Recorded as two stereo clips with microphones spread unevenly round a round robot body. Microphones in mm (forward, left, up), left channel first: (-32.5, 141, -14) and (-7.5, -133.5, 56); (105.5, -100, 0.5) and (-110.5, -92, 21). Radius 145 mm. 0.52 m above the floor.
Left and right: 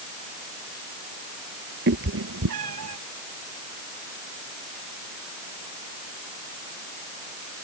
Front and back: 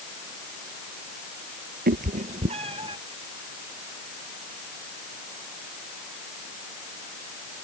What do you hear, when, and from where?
1.9 s a cat meowing: 135° right; by 3.0 s 115° right